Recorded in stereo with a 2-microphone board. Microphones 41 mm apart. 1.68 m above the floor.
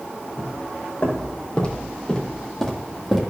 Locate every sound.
0.4 s footsteps: 45° left (ahead or behind), 4 m; by 3.2 s centre (ahead or behind), 3.5 m